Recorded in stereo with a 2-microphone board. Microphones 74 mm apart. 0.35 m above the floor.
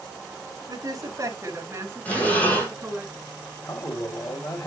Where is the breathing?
20° left (ahead or behind), 5 m.